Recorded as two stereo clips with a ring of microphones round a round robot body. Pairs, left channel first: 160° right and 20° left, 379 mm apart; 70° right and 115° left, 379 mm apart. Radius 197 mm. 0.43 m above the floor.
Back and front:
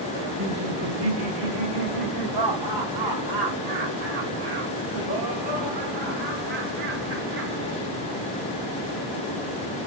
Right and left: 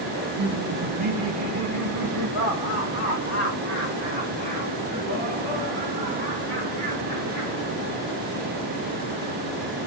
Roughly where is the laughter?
Ahead left.